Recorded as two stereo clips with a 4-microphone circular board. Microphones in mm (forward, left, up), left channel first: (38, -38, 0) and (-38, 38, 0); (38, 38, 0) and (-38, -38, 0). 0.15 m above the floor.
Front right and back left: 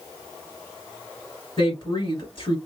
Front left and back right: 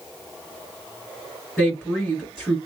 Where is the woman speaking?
40° right, 1.9 m.